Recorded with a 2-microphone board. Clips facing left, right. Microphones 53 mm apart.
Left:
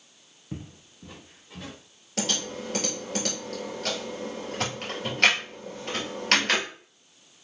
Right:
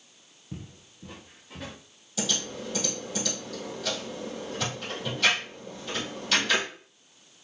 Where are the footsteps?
35° left (ahead or behind), 0.6 m; by 1.8 s 15° right (ahead or behind), 1.9 m.